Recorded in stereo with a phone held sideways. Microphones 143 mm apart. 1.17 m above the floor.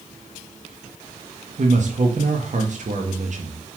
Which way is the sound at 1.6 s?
60° right (ahead or behind).